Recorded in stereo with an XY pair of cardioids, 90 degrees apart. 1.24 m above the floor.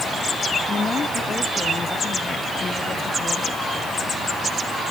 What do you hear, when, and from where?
0.7 s a woman speaking: 45° left; by 3.6 s 40° left